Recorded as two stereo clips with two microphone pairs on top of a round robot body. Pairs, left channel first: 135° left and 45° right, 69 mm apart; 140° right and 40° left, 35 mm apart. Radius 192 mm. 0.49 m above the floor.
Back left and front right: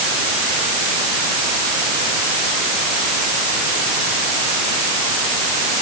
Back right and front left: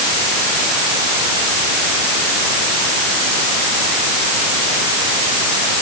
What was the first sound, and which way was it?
Only background noise.